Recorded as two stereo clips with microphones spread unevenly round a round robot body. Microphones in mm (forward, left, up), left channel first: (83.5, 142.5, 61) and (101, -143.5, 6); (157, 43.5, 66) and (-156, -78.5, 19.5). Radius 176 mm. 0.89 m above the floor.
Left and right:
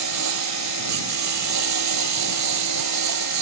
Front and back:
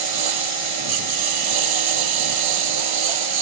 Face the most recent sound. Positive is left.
turn(degrees=-135)